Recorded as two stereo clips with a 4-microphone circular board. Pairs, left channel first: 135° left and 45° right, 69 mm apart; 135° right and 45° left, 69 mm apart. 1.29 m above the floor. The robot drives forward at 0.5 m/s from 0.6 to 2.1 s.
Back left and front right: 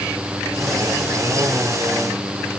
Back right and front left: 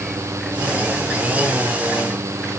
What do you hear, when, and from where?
Only background noise.